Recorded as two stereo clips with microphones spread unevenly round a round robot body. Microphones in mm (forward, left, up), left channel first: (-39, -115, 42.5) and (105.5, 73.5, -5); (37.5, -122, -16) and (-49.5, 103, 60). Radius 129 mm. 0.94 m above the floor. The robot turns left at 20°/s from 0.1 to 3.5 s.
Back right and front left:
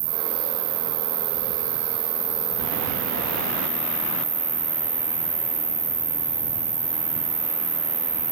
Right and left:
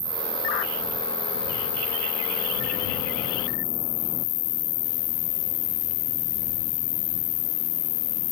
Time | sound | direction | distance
0.0 | an insect | 40° left | ?